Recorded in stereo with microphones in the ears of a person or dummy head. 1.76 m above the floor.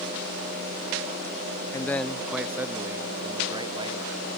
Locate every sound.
1.7 s a man speaking: 10° left (ahead or behind); by 4.1 s 35° right (ahead or behind)